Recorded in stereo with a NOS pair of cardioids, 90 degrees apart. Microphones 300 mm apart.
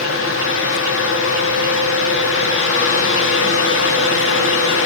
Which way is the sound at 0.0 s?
50° left.